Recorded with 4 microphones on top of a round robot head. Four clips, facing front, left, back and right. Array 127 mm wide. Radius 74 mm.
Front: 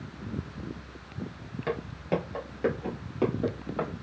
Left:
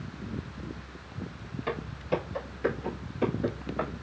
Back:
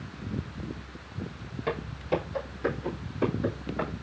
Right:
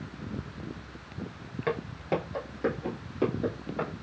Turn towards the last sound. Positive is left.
turn(degrees=-15)